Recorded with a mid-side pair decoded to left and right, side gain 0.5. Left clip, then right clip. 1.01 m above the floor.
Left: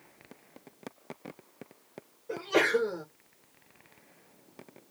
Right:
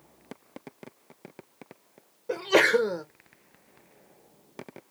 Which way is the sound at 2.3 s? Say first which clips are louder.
Right 5 dB; 60° right.